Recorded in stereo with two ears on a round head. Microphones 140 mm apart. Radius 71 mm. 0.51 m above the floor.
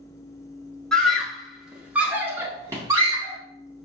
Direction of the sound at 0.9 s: 5° left (ahead or behind).